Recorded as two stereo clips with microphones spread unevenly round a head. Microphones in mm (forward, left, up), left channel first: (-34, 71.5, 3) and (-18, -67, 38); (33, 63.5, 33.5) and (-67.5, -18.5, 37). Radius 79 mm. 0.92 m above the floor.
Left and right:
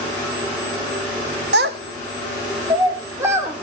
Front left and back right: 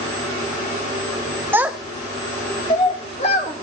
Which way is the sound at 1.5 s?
65° right.